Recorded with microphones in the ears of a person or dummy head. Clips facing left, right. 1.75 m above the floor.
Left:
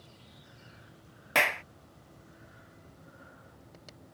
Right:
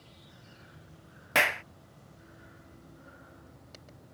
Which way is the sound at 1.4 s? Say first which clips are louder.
Even; centre (ahead or behind).